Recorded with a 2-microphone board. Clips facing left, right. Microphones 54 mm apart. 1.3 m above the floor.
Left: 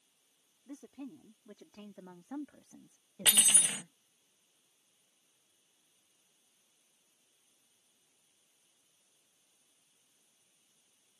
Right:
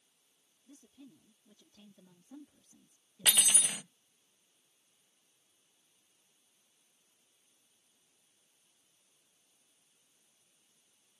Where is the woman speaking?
60° left (ahead or behind).